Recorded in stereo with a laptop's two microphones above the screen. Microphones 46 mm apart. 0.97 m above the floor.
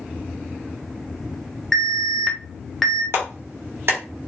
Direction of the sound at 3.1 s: 65° right (ahead or behind).